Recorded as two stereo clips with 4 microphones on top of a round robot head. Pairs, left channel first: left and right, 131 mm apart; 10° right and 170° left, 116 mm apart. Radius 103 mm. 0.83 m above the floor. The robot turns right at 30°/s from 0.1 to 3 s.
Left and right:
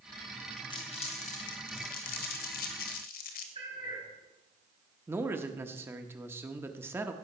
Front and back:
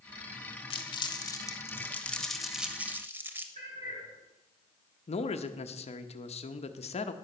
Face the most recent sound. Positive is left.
turn(degrees=-20)